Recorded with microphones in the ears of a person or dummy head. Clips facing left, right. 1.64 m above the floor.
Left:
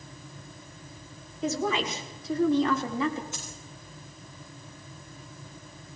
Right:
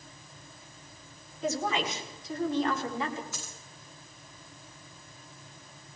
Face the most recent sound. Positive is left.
turn(degrees=25)  # may be behind; listen again after turning